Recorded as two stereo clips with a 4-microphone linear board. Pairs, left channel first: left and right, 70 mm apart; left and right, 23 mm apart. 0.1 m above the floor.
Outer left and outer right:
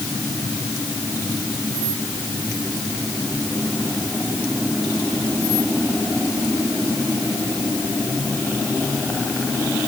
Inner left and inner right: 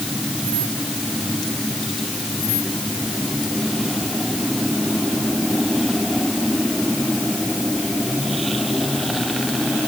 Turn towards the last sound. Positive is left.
No sound to turn to.